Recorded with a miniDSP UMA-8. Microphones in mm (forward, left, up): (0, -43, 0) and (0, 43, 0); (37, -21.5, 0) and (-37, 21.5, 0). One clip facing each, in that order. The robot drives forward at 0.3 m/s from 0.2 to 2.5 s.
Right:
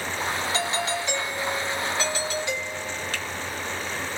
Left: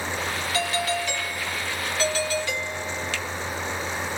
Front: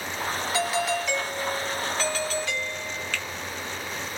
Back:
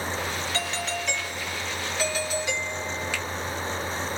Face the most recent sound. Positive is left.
turn(degrees=-135)